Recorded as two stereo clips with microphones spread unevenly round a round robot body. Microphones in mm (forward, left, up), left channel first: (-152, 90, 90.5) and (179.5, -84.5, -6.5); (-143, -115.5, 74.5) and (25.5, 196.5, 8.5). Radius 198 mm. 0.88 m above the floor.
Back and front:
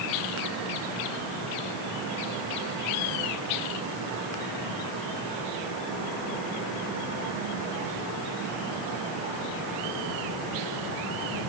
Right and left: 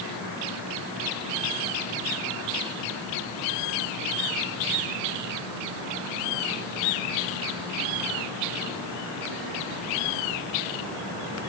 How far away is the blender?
No blender in this recording.